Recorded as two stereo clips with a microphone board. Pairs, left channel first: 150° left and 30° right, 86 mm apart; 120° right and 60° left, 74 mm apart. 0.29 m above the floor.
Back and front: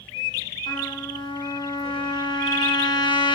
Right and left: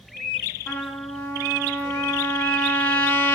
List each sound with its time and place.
0.7 s a trumpet: 175° left, 0.8 m